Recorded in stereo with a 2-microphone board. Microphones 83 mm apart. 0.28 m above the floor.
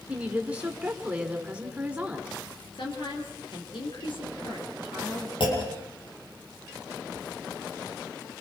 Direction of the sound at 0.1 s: 15° right (ahead or behind).